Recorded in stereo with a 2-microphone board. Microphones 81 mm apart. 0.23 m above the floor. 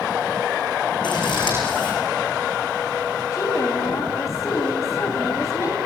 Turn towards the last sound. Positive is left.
turn(degrees=40)  # may be behind; listen again after turning